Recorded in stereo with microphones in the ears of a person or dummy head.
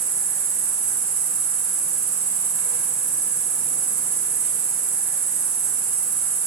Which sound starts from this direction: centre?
An insect, at 0.0 s.